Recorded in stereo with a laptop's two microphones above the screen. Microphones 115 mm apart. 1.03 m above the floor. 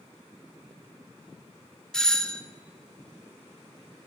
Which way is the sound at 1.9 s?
5° left (ahead or behind).